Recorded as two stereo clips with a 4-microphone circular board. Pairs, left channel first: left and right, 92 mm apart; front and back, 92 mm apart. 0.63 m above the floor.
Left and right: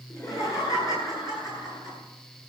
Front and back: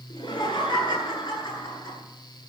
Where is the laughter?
35° left, 9.5 m; by 2.0 s 45° left, 9.5 m.